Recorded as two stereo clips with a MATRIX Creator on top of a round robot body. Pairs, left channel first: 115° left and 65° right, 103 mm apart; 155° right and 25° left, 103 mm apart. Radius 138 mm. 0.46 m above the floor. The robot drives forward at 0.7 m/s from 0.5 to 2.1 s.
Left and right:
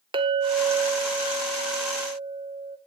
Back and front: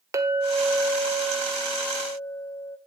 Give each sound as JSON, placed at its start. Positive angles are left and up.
{"t": 0.1, "sound": "a clink", "azimuth_deg": -35, "distance_m": 1.6}